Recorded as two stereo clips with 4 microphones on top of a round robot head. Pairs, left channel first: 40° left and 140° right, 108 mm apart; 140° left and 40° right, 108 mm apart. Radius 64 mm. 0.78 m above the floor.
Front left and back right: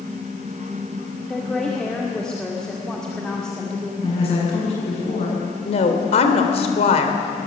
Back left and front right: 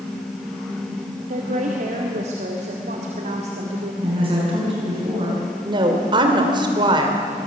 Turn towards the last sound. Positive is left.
turn(degrees=10)